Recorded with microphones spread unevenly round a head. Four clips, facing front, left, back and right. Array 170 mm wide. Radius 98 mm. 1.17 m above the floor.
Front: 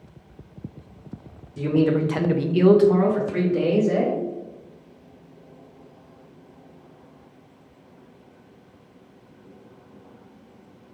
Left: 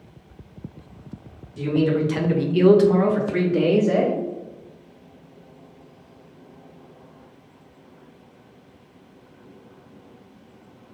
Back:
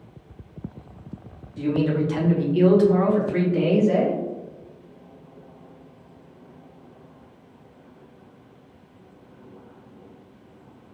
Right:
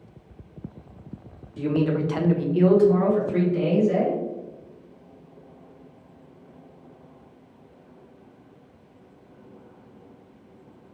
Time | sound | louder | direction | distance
1.6 | a man speaking | left 3 dB, front 2 dB | 25° right | 1.1 m